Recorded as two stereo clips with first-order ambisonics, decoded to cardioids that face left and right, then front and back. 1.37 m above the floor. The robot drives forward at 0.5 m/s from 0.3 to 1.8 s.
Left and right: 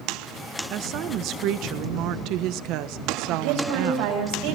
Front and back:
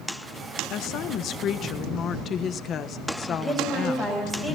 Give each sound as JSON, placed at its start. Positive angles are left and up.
{"t": 0.7, "sound": "a woman speaking", "azimuth_deg": -40, "distance_m": 1.6}
{"t": 3.3, "sound": "a woman speaking", "azimuth_deg": -105, "distance_m": 8.5}